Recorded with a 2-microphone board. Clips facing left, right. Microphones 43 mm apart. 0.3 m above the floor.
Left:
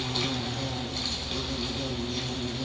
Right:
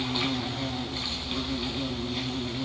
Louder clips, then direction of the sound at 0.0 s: Right 2 dB; 20° right (ahead or behind).